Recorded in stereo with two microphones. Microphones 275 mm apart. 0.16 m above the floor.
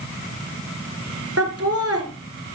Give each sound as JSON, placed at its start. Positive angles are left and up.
{"t": 1.4, "sound": "laughter", "side_deg": -60, "distance_m": 3.5}